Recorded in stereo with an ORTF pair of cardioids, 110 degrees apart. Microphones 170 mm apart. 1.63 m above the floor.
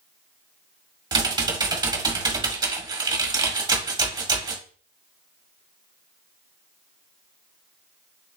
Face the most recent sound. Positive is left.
turn(degrees=-25)